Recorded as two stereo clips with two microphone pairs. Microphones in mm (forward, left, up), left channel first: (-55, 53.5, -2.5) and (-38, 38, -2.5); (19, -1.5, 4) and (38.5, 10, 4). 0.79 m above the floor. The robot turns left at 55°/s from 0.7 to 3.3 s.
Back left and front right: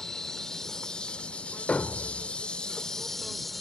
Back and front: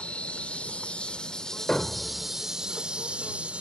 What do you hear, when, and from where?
0.0 s an insect: 165° right; by 3.6 s 55° left
1.7 s a thud: 155° left; by 2.3 s 120° left